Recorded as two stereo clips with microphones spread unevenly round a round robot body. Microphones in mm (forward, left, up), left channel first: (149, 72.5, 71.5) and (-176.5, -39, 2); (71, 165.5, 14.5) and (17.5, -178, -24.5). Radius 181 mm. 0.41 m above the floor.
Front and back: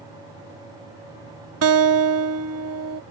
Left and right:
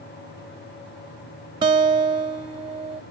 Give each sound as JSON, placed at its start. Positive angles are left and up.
{"t": 1.6, "sound": "a guitar", "azimuth_deg": -170}